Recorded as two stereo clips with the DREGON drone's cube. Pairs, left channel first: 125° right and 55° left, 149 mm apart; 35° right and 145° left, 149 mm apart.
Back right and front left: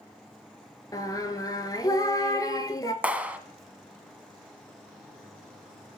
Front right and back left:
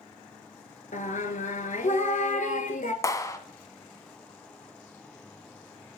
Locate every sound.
0.9 s singing: 60° right, 0.9 m
3.0 s a clap: 10° right, 0.8 m